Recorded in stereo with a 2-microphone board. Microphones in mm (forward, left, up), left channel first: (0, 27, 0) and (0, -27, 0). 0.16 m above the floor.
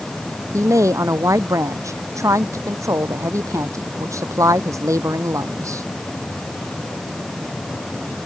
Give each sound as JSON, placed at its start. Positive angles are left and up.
{"t": 0.5, "sound": "a woman speaking", "side_deg": -70}